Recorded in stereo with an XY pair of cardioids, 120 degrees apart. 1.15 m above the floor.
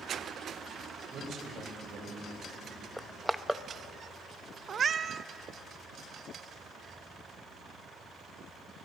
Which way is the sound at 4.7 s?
40° right.